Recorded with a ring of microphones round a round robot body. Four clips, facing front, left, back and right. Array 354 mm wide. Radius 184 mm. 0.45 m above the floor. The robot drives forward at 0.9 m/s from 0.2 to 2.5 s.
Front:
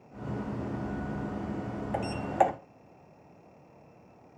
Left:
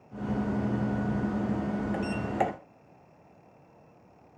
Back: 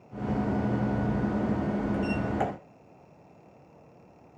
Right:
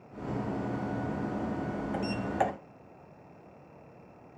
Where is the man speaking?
No man speaking in this recording.